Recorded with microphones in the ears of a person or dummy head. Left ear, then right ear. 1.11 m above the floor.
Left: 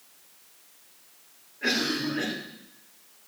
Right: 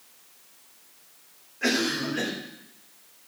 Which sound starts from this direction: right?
A cough, at 1.6 s.